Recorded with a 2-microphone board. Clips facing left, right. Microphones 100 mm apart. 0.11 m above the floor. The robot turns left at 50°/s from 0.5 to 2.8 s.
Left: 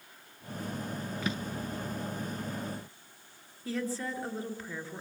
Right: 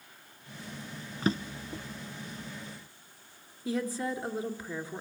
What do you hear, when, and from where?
1.2 s a drawer: 35° right (ahead or behind), 0.8 m; by 1.9 s 40° right (ahead or behind), 0.8 m
3.6 s a woman speaking: 15° right (ahead or behind), 2 m